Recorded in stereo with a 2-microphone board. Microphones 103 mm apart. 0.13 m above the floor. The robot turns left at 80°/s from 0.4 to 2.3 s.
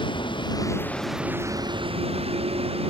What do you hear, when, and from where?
0.0 s a vehicle: 55° left (ahead or behind); by 2.9 s 80° right